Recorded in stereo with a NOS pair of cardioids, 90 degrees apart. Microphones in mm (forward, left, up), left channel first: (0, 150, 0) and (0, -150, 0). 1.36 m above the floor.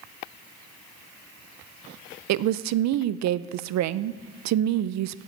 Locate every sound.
2.3 s a woman speaking: 70° right, 0.6 m